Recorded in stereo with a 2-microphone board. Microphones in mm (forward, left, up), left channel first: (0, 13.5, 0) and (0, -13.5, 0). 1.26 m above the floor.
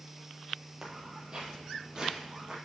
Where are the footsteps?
30° right (ahead or behind), 1.6 m; by 2.5 s 35° right (ahead or behind), 2.5 m.